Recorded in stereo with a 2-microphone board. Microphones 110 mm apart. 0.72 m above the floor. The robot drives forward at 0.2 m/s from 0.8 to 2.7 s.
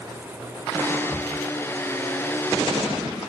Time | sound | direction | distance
1.1 | a cupboard door | centre (ahead or behind) | 1.7 m